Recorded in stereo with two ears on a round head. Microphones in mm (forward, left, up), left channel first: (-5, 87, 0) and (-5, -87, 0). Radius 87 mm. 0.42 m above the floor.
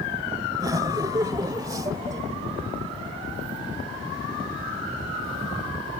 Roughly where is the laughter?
Right.